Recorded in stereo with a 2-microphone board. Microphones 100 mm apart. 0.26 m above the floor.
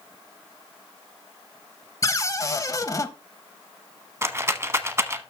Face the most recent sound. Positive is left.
turn(degrees=-25)  # may be behind; listen again after turning